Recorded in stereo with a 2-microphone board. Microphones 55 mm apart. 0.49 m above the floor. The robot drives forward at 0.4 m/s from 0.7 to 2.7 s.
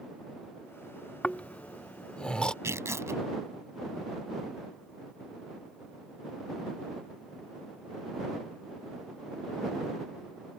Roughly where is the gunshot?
No gunshot in this recording.